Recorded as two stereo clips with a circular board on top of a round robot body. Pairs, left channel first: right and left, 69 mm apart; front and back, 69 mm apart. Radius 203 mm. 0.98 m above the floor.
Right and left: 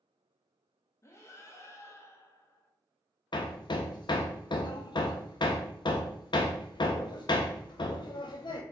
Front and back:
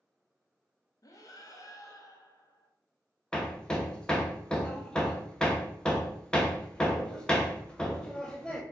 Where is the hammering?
80° right, 0.6 m.